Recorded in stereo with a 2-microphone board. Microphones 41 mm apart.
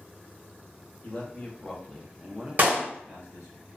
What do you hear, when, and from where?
1.0 s a man speaking: 35° left (ahead or behind), 1.0 m; by 3.6 s 65° right (ahead or behind), 1.0 m
2.6 s a clap: 45° right (ahead or behind), 1.0 m